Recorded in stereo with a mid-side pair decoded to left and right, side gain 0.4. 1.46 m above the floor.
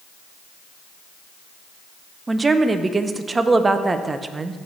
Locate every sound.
2.3 s a woman speaking: 30° right, 0.8 m